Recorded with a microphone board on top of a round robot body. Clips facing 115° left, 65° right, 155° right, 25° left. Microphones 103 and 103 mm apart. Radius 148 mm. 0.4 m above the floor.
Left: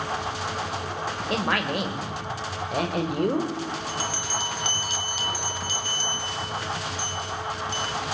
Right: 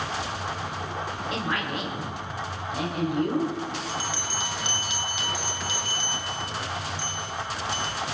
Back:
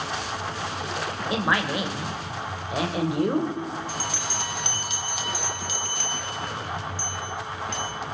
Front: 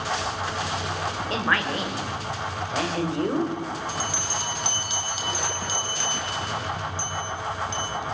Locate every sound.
1.3 s a man speaking: 130° left, 2 m
3.9 s a bell: 165° left, 1.7 m